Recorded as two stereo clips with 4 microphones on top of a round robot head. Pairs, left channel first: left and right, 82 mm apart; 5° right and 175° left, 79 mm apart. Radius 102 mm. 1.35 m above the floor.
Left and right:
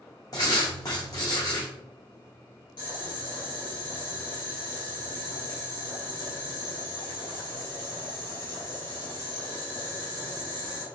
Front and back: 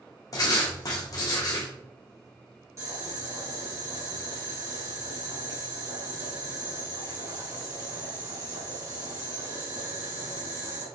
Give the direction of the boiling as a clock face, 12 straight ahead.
8 o'clock.